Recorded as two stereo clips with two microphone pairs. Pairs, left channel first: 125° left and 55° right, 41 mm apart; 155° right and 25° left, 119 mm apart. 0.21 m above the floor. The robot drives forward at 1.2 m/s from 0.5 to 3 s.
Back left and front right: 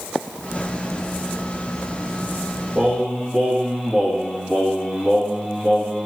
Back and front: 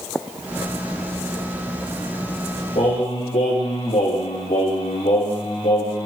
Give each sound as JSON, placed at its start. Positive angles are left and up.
{"t": 2.8, "sound": "singing", "azimuth_deg": -135, "distance_m": 5.0}